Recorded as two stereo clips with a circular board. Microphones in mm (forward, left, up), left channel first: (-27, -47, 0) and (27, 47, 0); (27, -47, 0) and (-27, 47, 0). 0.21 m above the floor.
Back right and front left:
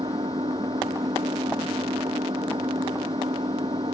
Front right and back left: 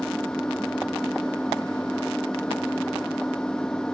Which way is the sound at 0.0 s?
20° left.